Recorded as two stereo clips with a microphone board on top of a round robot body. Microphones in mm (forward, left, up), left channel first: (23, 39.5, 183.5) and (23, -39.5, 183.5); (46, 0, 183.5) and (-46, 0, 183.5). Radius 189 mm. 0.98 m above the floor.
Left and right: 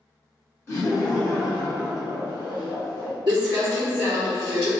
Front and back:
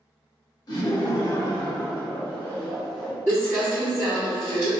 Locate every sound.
0.7 s laughter: 40° left, 1.6 m; by 3.1 s 90° left, 1.5 m
3.3 s crumpling: 115° right, 0.6 m